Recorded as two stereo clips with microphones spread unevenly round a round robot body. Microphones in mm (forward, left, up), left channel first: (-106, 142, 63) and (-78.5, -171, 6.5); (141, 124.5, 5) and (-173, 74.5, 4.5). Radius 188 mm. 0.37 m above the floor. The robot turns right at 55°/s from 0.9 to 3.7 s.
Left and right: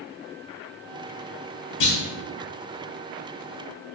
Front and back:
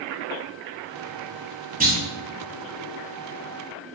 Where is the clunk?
125° left, 1.5 m; by 2.0 s 135° left, 1.5 m.